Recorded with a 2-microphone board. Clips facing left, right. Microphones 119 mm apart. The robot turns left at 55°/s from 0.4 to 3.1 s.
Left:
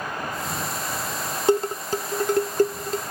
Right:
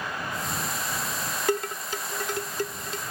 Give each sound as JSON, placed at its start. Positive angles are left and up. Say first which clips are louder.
{"t": 1.5, "sound": "dishes clattering", "louder": "left 7 dB", "side_deg": 25}